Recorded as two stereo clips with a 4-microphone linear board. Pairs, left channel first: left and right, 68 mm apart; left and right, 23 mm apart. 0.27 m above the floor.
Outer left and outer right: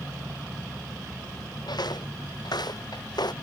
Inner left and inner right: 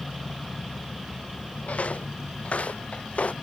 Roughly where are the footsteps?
Left.